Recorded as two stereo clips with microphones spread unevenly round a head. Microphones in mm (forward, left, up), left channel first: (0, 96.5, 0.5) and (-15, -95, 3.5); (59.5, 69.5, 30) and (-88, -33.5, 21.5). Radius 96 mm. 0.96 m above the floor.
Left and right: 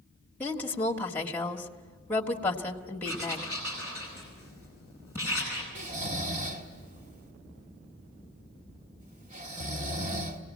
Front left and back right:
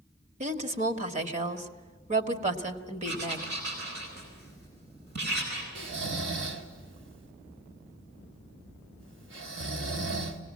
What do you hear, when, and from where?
0.4 s a woman speaking: 165° left, 1.8 m
3.0 s writing: 170° right, 10 m
5.8 s snoring: 145° right, 2.0 m